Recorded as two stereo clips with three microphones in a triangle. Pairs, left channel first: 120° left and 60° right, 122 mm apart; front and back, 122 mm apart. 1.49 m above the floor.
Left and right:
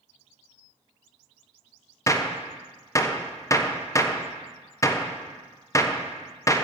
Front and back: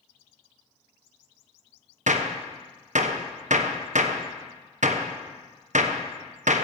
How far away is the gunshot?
About 1.0 m.